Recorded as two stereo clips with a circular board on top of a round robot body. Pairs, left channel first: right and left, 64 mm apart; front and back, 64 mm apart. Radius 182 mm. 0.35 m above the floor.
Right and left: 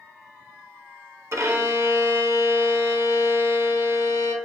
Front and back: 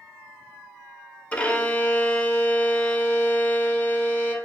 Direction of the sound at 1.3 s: 65° left.